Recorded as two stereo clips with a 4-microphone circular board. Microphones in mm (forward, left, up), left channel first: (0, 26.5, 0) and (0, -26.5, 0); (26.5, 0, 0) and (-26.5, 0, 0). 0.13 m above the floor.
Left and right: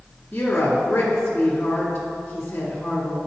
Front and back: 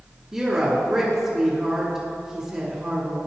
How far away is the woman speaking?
About 1.4 m.